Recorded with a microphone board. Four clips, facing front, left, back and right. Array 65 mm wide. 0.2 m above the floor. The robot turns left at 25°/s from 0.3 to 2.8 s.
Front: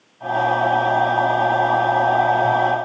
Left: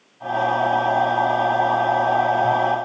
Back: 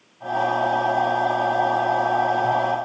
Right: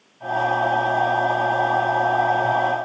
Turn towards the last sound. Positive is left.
No sound to turn to.